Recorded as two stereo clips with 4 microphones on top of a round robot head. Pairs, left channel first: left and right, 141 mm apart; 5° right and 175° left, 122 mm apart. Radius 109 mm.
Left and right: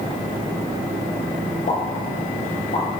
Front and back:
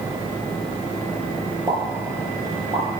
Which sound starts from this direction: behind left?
A pop, at 1.7 s.